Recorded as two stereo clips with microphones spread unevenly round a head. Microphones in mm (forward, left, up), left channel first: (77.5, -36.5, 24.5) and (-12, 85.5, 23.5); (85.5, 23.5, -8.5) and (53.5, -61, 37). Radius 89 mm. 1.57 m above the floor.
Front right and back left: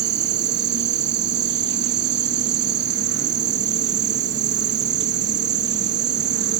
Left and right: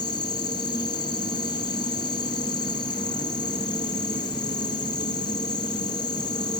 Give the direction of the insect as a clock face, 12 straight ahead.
8 o'clock.